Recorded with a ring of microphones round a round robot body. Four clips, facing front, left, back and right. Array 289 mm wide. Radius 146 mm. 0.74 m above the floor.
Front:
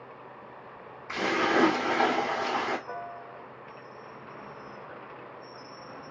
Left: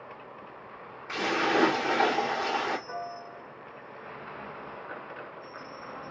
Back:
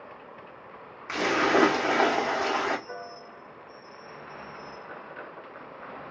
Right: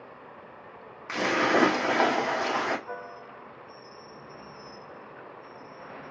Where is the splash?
135° right, 1.3 m.